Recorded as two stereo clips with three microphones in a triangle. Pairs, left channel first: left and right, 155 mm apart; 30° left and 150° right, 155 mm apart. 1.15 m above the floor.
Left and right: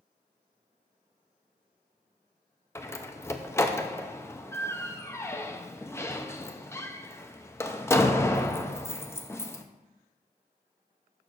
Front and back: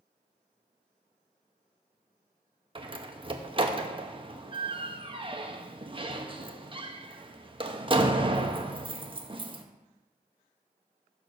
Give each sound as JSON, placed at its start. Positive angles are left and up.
{"t": 2.8, "sound": "a door slam", "azimuth_deg": 160, "distance_m": 0.6}